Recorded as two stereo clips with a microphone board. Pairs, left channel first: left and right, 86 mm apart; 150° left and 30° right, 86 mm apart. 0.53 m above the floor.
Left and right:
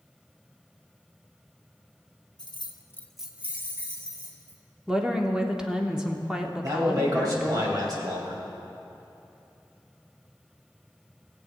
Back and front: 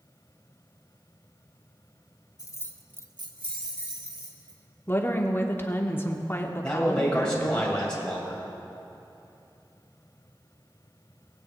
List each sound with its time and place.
2.4 s keys jangling: 110° left, 0.9 m; by 4.6 s 35° right, 2.5 m
4.9 s a woman speaking: 170° right, 1.0 m
6.6 s a man speaking: 130° right, 2.5 m